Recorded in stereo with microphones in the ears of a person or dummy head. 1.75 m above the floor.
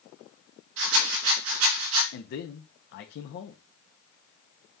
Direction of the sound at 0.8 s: 75° right (ahead or behind).